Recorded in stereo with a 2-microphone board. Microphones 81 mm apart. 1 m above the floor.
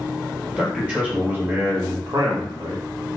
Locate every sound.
0.6 s a man speaking: 10° right (ahead or behind), 2.0 m; by 2.9 s 70° right (ahead or behind), 1.1 m